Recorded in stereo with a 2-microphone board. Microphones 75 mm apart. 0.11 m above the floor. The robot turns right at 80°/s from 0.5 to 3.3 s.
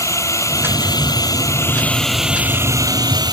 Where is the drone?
50° left; by 3.3 s 90° right.